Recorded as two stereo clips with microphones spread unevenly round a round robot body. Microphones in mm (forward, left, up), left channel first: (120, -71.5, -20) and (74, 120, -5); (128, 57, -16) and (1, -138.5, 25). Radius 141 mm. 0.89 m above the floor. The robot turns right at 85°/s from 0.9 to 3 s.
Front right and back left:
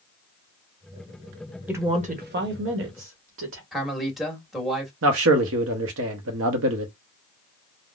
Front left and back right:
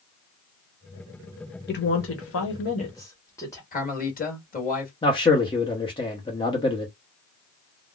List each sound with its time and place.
1.7 s a woman speaking: 20° left, 1.1 m; by 3.6 s 130° left, 1.1 m
3.7 s a man speaking: 10° left, 1.5 m
5.0 s a man speaking: 125° left, 0.7 m